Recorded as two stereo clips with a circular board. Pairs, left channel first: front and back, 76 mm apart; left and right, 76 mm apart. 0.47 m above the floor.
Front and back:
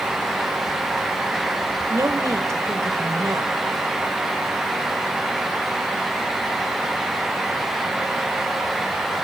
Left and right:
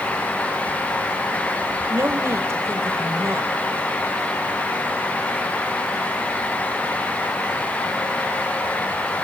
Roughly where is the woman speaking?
Behind right.